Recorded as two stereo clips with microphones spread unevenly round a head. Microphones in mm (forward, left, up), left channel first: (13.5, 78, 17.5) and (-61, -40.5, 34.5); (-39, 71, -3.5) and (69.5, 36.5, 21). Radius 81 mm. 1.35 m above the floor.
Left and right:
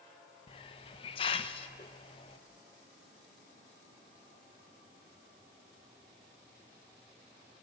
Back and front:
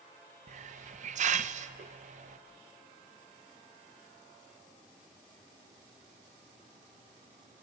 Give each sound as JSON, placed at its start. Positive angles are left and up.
{"t": 0.5, "sound": "a hiss", "azimuth_deg": -5, "distance_m": 0.8}